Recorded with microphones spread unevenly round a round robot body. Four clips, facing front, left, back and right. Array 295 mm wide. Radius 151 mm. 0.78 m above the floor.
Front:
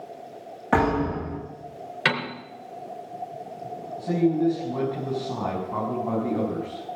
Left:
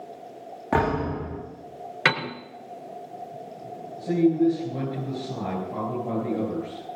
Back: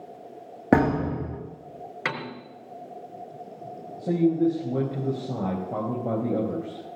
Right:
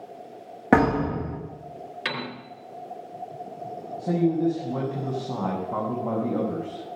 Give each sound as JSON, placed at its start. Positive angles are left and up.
{"t": 0.7, "sound": "a thud", "azimuth_deg": -150, "distance_m": 10.0}
{"t": 2.0, "sound": "a piano", "azimuth_deg": 70, "distance_m": 3.5}
{"t": 4.0, "sound": "a man speaking", "azimuth_deg": -165, "distance_m": 4.5}